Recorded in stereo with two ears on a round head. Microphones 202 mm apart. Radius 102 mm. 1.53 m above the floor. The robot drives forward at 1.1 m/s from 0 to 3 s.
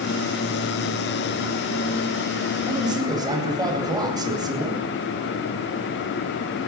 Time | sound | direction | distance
2.7 | a man speaking | 20° right (ahead or behind) | 8.5 m